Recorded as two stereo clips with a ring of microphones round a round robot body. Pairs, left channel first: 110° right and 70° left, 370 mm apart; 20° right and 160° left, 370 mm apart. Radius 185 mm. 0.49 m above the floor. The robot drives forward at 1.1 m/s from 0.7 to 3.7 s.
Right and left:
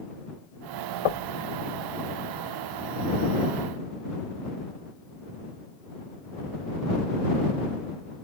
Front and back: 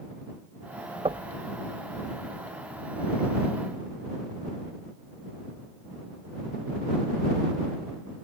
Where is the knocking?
125° right; by 1.4 s 135° right.